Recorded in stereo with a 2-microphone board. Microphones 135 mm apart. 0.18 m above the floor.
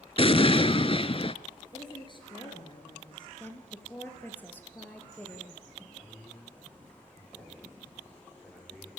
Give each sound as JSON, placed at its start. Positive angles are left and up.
{"t": 0.2, "sound": "an explosion", "side_deg": 45, "distance_m": 0.7}
{"t": 1.7, "sound": "a woman speaking", "side_deg": 35, "distance_m": 3.0}
{"t": 3.4, "sound": "a woman speaking", "side_deg": 15, "distance_m": 3.5}
{"t": 6.0, "sound": "a man speaking", "side_deg": 5, "distance_m": 10.0}